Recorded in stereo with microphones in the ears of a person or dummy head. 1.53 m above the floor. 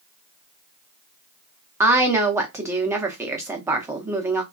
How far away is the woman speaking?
About 0.7 m.